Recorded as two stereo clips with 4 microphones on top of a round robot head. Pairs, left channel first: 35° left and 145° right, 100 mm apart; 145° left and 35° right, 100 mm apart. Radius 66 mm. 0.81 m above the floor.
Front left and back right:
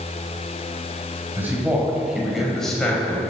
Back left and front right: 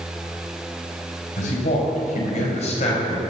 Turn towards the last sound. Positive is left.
turn(degrees=110)